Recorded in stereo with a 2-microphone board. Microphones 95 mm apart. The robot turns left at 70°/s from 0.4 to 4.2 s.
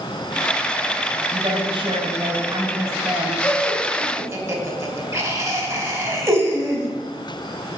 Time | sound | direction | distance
1.3 | a woman speaking | 30° right | 4 m
3.4 | laughter | 20° left (ahead or behind) | 3 m